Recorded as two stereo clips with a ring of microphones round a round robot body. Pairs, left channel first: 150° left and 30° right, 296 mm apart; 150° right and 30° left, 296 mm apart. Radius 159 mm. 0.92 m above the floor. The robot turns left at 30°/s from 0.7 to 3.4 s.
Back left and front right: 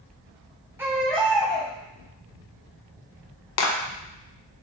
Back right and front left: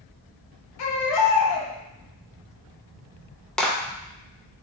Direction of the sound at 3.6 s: 125° left.